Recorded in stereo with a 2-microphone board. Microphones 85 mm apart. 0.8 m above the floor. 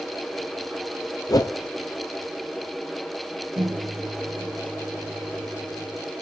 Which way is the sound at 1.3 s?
50° left (ahead or behind).